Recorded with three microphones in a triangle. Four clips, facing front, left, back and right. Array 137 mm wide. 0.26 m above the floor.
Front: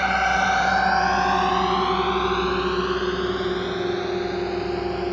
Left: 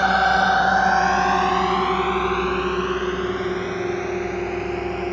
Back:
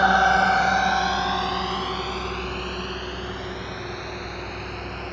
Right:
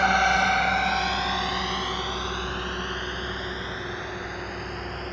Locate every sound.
0.0 s a drone: 150° left; by 5.1 s 40° left